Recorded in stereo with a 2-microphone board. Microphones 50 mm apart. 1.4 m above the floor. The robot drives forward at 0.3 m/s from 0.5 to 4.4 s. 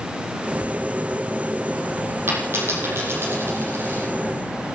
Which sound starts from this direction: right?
A dropped coin, at 2.3 s.